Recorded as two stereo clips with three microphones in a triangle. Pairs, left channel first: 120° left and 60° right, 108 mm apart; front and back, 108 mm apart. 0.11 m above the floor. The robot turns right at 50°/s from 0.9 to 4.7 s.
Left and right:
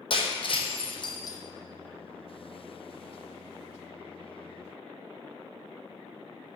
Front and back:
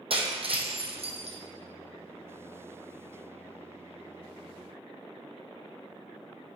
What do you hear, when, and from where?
0.1 s breaking glass: 155° left, 1.6 m; by 1.4 s 175° left, 1.6 m